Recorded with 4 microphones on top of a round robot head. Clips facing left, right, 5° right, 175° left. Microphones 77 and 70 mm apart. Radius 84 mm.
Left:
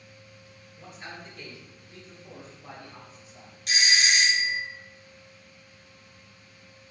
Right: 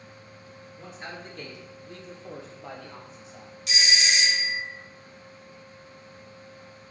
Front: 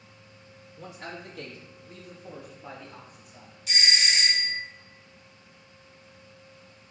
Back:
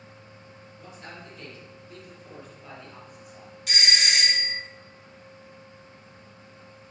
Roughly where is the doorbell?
Behind left.